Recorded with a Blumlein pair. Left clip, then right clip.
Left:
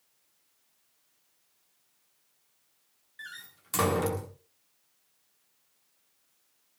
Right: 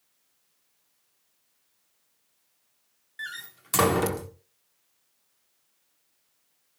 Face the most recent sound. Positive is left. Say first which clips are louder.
# right 7 dB
turn(degrees=-70)